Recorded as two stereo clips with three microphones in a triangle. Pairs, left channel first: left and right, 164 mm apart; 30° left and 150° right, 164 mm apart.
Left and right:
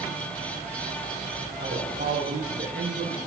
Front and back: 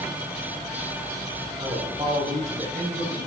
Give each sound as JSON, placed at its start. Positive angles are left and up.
{"t": 1.6, "sound": "a man speaking", "azimuth_deg": -80, "distance_m": 6.5}